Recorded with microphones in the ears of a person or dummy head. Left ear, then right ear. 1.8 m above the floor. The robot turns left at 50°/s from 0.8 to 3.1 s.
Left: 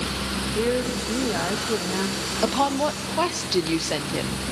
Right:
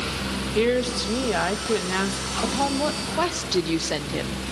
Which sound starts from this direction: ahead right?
A woman speaking, at 0.6 s.